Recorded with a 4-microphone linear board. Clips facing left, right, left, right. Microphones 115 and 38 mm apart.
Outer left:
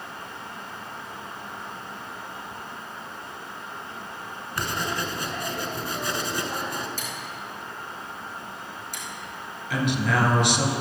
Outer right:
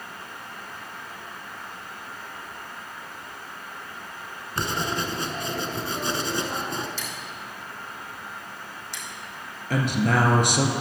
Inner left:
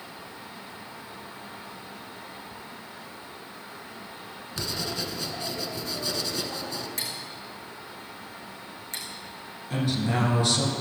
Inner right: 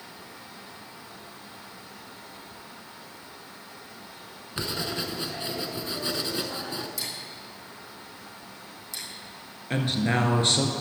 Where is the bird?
I don't hear a bird.